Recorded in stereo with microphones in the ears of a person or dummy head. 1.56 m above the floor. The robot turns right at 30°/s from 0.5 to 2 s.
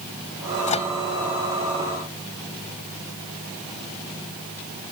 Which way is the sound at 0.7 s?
35° left (ahead or behind).